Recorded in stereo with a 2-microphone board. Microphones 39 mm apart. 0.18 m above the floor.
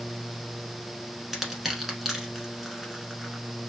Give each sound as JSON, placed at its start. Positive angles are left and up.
{"t": 1.3, "sound": "crushing", "side_deg": -5, "distance_m": 1.0}